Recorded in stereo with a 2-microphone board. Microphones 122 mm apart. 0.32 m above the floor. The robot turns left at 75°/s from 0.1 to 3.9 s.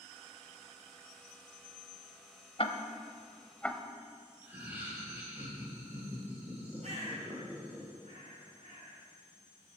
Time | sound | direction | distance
2.6 | ticking | 50° left (ahead or behind) | 1.1 m
4.4 | laughter | 15° right (ahead or behind) | 6 m
6.8 | a bird | 65° right (ahead or behind) | 5.5 m